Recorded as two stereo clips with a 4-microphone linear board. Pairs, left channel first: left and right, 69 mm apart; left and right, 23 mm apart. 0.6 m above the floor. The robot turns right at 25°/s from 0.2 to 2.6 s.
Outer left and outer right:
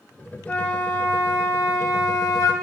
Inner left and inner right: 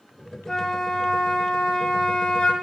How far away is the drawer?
I don't hear a drawer.